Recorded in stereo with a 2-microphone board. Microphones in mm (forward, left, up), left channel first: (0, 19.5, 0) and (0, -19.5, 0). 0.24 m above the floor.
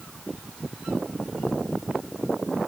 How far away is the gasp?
No gasp in this recording.